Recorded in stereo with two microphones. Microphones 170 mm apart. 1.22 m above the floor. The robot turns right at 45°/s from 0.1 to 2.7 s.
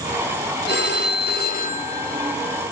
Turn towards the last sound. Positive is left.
turn(degrees=10)  # may be behind; listen again after turning